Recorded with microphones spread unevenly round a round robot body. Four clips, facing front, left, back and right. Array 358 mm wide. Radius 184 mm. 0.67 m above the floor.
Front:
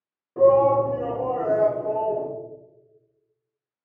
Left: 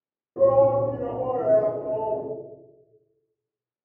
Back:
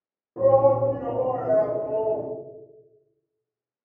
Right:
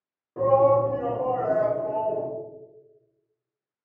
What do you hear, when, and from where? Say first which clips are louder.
0.4 s a shout: left 1 dB, front 1 dB; 70° left, 0.9 m; by 2.3 s 140° left, 2.5 m